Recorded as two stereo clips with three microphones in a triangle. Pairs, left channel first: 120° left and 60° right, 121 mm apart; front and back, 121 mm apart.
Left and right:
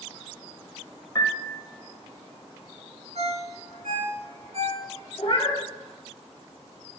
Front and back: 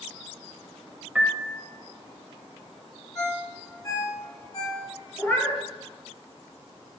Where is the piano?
105° left, 1.4 m.